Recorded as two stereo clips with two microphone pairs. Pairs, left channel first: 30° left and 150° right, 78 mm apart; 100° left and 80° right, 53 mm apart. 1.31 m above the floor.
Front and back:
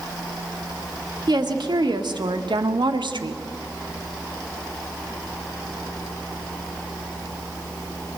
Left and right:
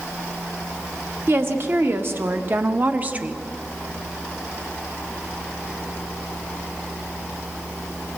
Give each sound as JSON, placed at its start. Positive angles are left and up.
{"t": 1.3, "sound": "a woman speaking", "azimuth_deg": -125, "distance_m": 1.9}